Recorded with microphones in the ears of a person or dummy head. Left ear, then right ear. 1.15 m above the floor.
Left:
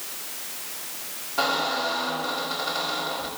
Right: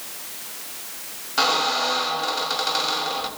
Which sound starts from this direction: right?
A squeak, at 1.4 s.